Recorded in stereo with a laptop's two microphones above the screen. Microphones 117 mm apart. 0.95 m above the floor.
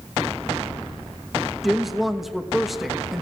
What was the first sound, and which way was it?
A woman speaking, centre (ahead or behind).